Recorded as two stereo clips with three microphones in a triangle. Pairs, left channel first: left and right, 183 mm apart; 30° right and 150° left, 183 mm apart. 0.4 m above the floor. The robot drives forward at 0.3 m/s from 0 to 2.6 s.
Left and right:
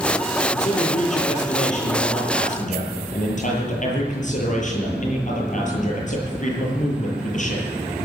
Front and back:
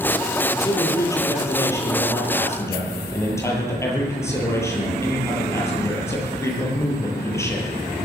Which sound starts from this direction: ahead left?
A man speaking, at 0.5 s.